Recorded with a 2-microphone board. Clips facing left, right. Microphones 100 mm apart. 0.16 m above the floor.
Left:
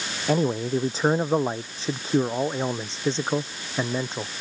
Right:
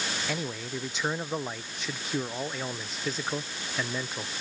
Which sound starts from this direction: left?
A man speaking, at 0.3 s.